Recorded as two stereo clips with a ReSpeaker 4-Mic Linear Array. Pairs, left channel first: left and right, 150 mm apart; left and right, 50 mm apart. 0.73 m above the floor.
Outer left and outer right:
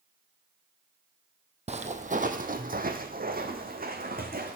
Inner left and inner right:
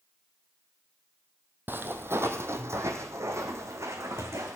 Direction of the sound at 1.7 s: 45° right (ahead or behind).